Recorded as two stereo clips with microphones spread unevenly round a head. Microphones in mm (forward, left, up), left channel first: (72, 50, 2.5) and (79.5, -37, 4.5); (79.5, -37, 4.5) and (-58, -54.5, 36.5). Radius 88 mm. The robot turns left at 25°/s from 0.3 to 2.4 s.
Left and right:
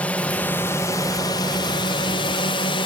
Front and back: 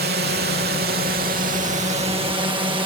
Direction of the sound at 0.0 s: 175° left.